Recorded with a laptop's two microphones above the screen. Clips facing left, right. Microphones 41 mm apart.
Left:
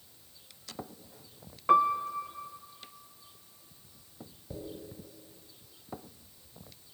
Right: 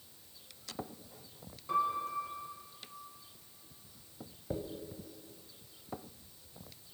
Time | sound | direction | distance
1.7 | a piano | 55° left (ahead or behind) | 0.6 m
4.5 | a dropped coin | 35° right (ahead or behind) | 1.6 m